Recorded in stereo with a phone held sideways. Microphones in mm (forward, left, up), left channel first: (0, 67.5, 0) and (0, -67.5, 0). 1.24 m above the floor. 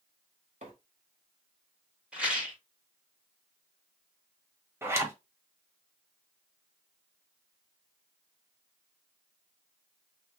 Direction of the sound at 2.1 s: 10° right (ahead or behind).